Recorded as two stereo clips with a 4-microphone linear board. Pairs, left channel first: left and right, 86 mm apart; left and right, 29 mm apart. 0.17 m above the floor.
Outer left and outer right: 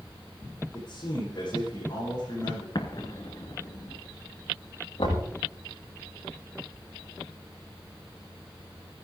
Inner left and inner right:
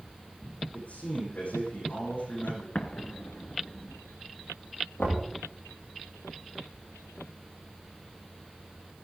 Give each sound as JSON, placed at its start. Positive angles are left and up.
{"t": 0.7, "sound": "a man speaking", "side_deg": 50, "distance_m": 9.5}
{"t": 2.8, "sound": "an explosion", "side_deg": 55, "distance_m": 1.7}
{"t": 5.0, "sound": "knocking", "side_deg": 60, "distance_m": 10.0}